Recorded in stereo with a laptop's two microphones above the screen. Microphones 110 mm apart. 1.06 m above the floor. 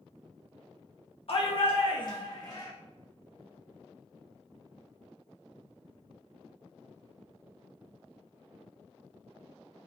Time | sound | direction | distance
1.3 | a shout | 55° left (ahead or behind) | 0.7 m